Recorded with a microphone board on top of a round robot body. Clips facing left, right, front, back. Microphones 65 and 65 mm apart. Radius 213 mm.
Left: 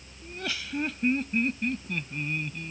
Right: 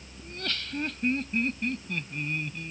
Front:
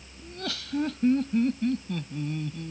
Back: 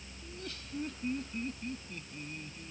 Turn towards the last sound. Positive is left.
turn(degrees=0)